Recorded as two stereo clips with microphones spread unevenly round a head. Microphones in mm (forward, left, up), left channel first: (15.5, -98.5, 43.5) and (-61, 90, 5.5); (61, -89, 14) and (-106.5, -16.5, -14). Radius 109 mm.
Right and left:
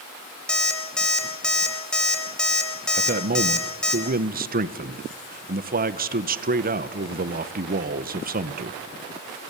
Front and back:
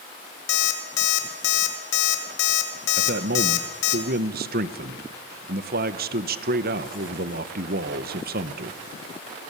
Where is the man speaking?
140° left, 1.1 m.